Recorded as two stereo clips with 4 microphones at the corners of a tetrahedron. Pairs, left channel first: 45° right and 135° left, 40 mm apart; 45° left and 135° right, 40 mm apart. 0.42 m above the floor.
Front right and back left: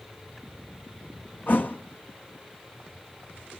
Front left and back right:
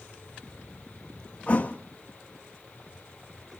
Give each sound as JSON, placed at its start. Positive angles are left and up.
{"t": 1.5, "sound": "a thud", "azimuth_deg": -10, "distance_m": 1.5}